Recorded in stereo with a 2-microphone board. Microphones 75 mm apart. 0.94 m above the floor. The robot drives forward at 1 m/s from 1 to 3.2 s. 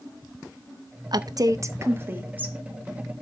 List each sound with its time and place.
1.1 s a woman speaking: 60° right (ahead or behind), 0.6 m; by 2.6 s 20° right (ahead or behind), 1.6 m